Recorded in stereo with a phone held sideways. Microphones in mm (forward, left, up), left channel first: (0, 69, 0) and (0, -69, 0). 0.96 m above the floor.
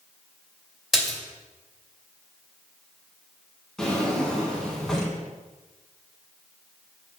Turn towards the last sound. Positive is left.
turn(degrees=5)  # may be behind; listen again after turning